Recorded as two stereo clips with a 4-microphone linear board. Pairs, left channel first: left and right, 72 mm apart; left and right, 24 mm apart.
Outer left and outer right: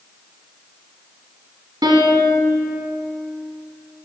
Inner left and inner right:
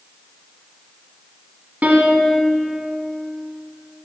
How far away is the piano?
About 1.6 m.